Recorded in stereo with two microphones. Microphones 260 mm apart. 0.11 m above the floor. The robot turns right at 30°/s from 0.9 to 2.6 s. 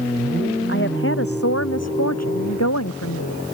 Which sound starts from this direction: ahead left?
A woman speaking, at 0.7 s.